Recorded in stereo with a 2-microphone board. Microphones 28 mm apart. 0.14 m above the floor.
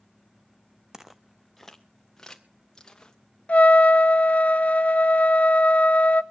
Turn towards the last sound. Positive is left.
turn(degrees=60)  # may be behind; listen again after turning